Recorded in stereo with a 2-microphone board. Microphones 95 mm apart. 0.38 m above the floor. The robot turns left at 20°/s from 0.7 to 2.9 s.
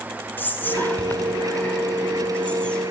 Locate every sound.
0.4 s whispering: 20° left (ahead or behind), 1.5 m; by 2.9 s 10° left (ahead or behind), 1.5 m